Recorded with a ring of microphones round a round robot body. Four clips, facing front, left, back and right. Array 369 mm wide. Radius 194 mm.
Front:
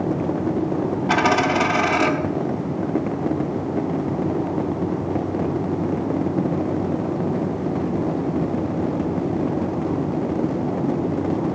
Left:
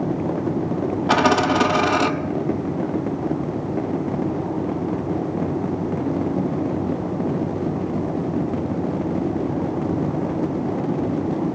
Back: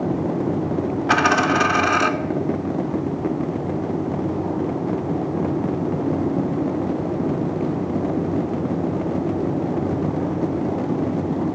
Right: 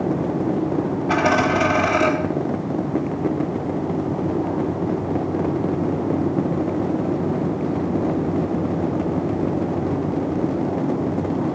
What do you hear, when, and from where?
1.1 s a dropped coin: 110° left, 0.5 m